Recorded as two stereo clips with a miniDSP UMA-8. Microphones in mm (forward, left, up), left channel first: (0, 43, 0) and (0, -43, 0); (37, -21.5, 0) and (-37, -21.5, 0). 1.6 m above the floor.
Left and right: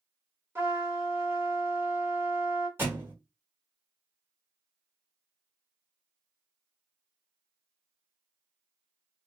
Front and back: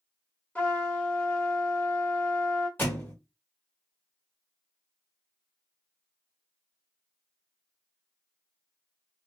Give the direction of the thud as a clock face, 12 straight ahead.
1 o'clock.